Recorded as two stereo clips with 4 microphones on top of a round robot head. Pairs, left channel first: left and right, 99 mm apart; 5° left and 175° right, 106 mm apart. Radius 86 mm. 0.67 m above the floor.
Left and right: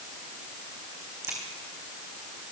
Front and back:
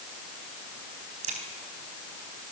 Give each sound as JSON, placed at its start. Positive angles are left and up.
{"t": 1.2, "sound": "a crack", "azimuth_deg": -165, "distance_m": 4.5}